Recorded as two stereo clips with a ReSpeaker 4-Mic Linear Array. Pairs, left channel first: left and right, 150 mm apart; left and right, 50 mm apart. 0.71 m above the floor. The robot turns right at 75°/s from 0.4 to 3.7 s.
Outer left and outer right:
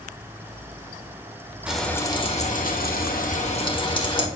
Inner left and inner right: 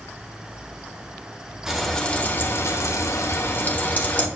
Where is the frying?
5° right, 1.0 m; by 4.3 s 145° left, 1.0 m.